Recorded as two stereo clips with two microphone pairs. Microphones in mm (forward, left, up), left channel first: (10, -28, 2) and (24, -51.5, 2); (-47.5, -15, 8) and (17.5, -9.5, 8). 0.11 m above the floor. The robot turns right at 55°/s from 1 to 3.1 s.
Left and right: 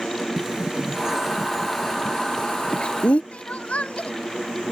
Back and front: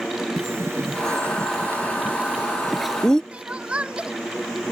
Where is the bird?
5° right; by 3.2 s 110° left.